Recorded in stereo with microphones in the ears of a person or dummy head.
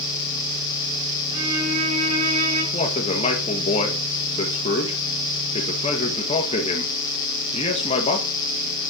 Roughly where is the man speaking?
Left.